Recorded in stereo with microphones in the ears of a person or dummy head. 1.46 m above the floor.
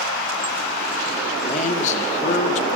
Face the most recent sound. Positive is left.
turn(degrees=40)  # may be behind; listen again after turning